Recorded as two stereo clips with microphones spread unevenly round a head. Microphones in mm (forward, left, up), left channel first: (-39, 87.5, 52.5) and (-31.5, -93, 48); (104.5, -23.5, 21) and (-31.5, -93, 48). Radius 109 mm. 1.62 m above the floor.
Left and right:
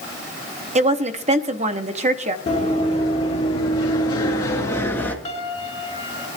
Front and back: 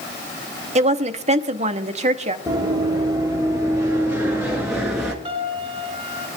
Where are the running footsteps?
140° left, 3 m; by 5.2 s 145° left, 1.6 m.